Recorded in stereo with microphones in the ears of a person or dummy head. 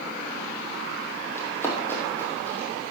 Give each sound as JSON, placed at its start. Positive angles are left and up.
{"t": 1.4, "sound": "running footsteps", "side_deg": 20, "distance_m": 3.0}